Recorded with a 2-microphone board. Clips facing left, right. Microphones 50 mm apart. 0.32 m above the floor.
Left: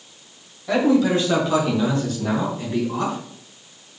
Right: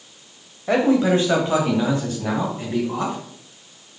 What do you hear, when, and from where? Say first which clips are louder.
0.7 s a man speaking: right 1 dB; 35° right (ahead or behind), 1.7 m; by 3.2 s 25° right (ahead or behind), 3 m